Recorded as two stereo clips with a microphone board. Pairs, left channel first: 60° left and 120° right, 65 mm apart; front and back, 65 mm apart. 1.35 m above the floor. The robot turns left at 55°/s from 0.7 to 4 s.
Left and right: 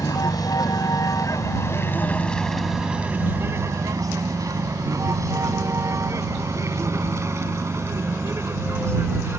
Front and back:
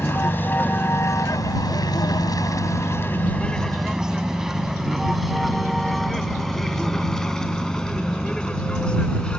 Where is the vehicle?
55° left; by 9.4 s 75° right.